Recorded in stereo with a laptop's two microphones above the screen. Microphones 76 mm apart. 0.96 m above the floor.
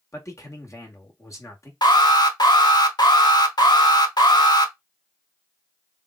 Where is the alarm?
65° left (ahead or behind), 1.1 m.